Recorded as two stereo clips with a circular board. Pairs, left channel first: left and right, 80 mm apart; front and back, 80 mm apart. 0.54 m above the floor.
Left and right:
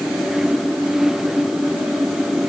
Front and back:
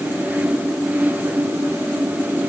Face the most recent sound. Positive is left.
No sound to turn to.